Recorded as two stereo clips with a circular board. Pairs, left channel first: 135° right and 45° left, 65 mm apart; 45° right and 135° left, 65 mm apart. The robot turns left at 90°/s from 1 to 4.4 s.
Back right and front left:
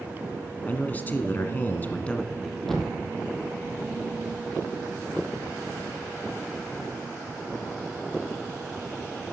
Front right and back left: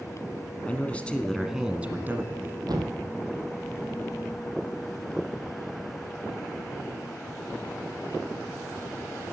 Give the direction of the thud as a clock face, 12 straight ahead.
7 o'clock.